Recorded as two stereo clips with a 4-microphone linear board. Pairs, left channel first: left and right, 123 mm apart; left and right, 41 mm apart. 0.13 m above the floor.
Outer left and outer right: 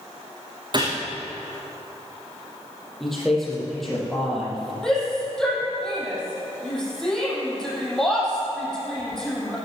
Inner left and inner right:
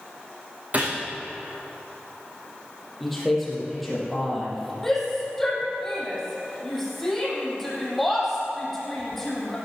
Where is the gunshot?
40° right (ahead or behind), 4 m.